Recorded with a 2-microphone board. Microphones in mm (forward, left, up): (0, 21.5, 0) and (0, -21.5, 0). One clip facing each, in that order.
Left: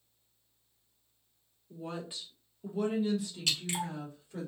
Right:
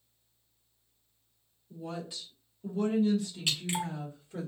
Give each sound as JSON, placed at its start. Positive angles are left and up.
{"t": 1.7, "sound": "a woman speaking", "side_deg": 30, "distance_m": 1.2}
{"t": 3.5, "sound": "dripping", "side_deg": -20, "distance_m": 1.2}